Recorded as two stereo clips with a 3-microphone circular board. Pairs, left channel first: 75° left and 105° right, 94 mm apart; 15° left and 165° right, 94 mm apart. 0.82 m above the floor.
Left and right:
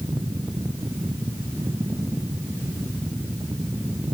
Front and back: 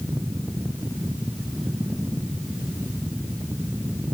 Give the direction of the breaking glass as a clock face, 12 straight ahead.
No breaking glass in this recording.